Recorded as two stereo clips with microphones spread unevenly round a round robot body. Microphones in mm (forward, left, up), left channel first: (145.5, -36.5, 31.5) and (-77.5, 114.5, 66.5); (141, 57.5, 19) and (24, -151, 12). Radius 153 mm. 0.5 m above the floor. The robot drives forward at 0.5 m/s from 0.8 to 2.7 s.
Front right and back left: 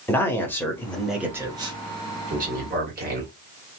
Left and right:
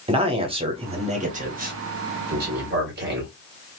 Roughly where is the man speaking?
Right.